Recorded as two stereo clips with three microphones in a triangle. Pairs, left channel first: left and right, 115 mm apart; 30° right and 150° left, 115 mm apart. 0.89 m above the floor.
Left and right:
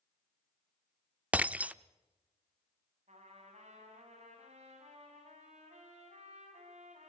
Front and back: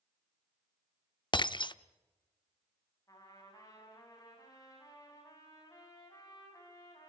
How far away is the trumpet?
About 7.5 m.